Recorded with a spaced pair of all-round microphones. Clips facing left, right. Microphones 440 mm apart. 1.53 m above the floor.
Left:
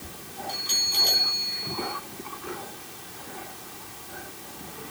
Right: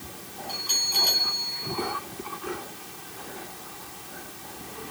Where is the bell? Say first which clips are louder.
Even; 35° left (ahead or behind), 3.5 m.